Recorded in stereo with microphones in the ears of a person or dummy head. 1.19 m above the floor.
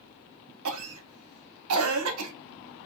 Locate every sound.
0.7 s a cough: 80° right, 0.7 m